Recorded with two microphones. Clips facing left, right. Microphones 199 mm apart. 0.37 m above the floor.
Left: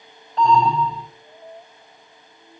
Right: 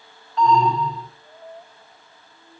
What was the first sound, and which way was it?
An alarm, 35° left (ahead or behind).